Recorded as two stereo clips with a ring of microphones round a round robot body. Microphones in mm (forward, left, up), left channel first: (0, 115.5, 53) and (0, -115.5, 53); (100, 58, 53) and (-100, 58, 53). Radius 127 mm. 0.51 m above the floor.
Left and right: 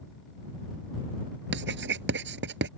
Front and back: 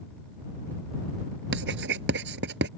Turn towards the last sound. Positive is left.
turn(degrees=-135)